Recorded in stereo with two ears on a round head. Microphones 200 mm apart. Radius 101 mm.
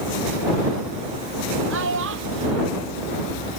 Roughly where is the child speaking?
Right.